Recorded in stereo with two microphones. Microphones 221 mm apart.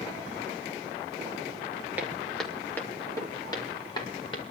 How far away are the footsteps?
About 2 m.